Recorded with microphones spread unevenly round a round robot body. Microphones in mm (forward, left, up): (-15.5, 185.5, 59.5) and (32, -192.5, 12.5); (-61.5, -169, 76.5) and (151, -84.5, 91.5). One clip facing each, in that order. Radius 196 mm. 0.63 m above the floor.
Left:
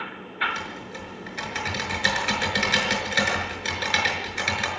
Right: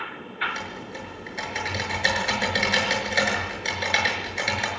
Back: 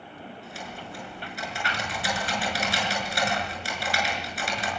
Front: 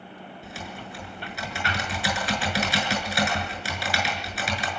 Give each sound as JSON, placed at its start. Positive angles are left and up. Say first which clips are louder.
{"t": 0.4, "sound": "typing on a keyboard", "louder": "left 1 dB, front 1 dB", "azimuth_deg": 25, "distance_m": 6.5}